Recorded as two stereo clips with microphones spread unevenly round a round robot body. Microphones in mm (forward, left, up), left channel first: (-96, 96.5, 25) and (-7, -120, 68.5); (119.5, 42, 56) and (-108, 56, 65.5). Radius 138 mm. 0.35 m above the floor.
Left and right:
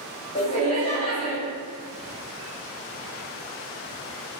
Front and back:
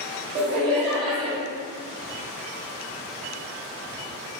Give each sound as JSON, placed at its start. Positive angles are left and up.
{"t": 0.3, "sound": "laughter", "azimuth_deg": 160, "distance_m": 1.4}